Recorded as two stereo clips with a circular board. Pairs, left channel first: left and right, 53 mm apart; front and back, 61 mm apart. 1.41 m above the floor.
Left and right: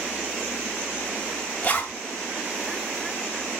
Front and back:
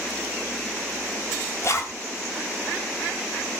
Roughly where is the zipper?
Ahead left.